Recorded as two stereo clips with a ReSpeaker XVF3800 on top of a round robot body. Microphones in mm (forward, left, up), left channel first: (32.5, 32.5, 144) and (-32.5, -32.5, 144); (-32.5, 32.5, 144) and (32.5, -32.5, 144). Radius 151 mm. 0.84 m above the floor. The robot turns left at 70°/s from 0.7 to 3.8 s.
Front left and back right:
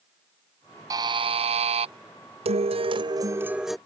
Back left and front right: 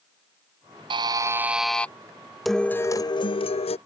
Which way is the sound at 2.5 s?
135° right.